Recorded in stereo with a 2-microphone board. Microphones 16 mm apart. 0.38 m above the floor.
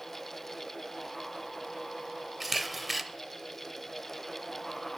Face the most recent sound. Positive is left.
turn(degrees=0)  # may be behind; listen again after turning